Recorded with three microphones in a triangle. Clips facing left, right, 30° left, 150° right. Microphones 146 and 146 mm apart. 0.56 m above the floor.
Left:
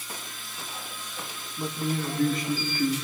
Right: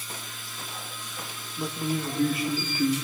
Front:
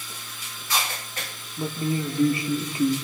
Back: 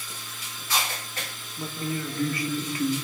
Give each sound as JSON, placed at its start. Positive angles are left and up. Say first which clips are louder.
{"t": 1.6, "sound": "a man speaking", "louder": "even, front 5 dB", "azimuth_deg": -10, "distance_m": 0.8}